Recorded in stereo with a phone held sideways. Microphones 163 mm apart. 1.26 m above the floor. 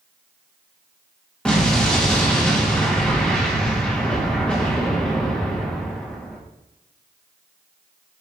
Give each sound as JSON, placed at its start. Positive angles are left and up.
{"t": 1.4, "sound": "an explosion", "side_deg": 5, "distance_m": 2.5}